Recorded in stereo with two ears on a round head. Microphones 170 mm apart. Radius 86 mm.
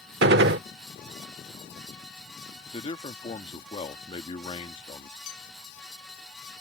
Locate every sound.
0.2 s a gunshot: 60° right (ahead or behind)
2.7 s a man speaking: 30° left (ahead or behind)
5.3 s a clink: 80° left